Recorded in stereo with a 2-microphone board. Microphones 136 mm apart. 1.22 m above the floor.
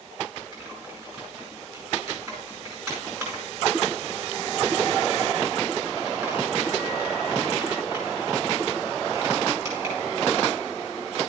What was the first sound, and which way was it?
Typing on a keyboard, 25° right (ahead or behind).